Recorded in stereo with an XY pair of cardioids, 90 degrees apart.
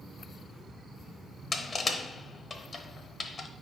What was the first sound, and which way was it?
Crushing, 40° left.